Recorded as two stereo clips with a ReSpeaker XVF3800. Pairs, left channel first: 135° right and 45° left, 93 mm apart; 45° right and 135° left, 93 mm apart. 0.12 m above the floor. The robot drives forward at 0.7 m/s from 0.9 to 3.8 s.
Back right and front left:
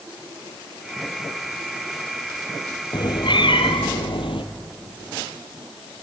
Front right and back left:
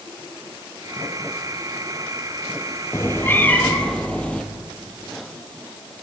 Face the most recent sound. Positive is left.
turn(degrees=-120)